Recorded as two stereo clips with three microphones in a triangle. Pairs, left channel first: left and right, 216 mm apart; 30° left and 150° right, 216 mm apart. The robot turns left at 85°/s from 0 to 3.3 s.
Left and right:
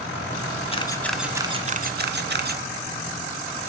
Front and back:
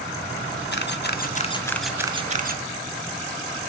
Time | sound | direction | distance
0.7 | a camera shutter | 35° left | 0.7 m